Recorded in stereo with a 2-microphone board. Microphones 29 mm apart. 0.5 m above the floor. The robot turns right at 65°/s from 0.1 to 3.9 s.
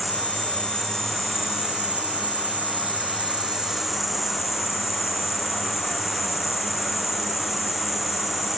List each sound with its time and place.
0.0 s an insect: 110° left, 1.2 m; by 8.6 s 5° right, 1.2 m